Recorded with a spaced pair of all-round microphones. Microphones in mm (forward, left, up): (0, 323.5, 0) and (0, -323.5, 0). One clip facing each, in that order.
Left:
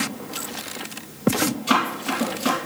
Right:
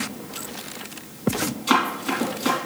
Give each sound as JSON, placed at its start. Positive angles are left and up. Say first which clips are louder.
{"t": 1.7, "sound": "running footsteps", "louder": "even", "side_deg": 30, "distance_m": 3.0}